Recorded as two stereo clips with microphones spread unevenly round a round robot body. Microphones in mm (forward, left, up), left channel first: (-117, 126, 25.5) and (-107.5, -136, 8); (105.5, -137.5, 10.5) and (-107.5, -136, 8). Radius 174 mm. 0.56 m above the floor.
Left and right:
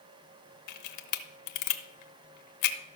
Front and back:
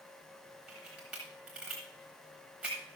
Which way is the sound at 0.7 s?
95° left.